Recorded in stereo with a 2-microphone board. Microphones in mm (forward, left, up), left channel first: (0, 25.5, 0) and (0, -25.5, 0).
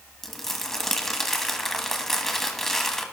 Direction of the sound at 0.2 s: 5° left (ahead or behind).